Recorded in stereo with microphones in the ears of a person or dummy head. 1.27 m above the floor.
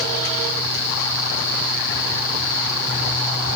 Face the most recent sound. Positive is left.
No sound to turn to.